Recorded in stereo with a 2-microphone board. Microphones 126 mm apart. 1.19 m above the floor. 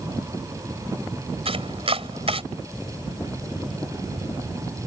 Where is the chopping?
50° right (ahead or behind).